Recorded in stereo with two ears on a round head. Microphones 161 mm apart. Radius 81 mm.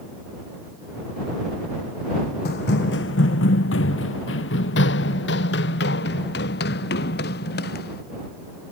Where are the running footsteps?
60° left (ahead or behind); by 8.0 s 55° left (ahead or behind).